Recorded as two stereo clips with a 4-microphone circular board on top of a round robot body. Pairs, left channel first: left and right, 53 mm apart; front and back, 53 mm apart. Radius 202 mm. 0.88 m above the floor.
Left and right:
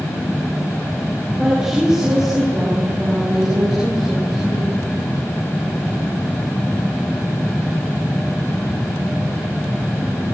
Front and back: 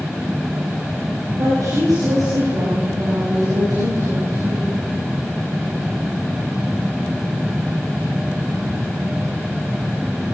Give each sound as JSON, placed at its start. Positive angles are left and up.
{"t": 1.4, "sound": "a woman speaking", "azimuth_deg": -170, "distance_m": 7.0}